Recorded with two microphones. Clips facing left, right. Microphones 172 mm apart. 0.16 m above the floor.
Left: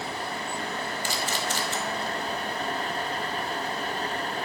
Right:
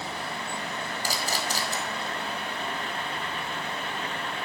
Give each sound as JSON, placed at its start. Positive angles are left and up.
{"t": 1.0, "sound": "a camera shutter", "side_deg": -40, "distance_m": 1.3}